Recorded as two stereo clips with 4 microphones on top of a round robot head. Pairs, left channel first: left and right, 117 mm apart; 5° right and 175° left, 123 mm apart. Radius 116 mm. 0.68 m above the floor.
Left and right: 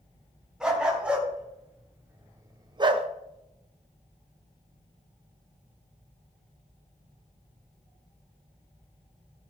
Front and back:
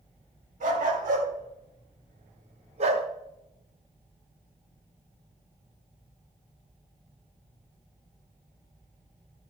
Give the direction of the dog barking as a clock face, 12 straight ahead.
6 o'clock.